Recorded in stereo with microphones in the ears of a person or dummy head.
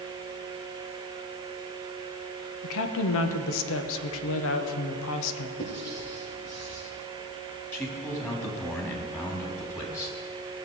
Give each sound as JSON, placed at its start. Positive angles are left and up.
{"t": 2.6, "sound": "a woman speaking", "side_deg": 70, "distance_m": 1.2}
{"t": 5.6, "sound": "writing", "side_deg": 50, "distance_m": 4.0}
{"t": 7.7, "sound": "a man speaking", "side_deg": 15, "distance_m": 3.5}